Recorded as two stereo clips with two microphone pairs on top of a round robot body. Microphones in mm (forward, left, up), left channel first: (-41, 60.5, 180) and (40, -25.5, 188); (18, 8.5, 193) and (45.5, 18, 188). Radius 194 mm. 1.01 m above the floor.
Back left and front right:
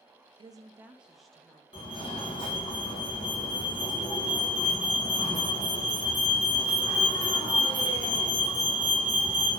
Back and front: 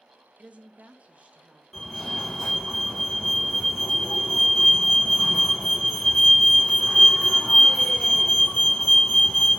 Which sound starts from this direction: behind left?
A fire alarm, at 1.7 s.